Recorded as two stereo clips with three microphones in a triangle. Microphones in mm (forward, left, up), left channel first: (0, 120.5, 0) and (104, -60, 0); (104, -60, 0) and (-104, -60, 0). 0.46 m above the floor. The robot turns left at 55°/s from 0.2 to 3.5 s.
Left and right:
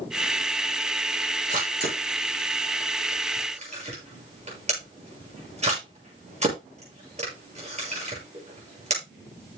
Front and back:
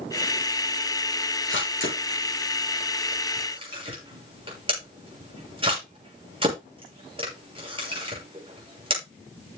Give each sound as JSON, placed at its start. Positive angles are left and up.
{"t": 1.5, "sound": "a camera shutter", "azimuth_deg": -5, "distance_m": 6.5}